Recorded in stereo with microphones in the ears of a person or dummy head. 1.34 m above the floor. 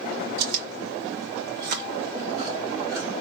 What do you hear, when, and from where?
0.4 s chewing: 60° right (ahead or behind), 1.9 m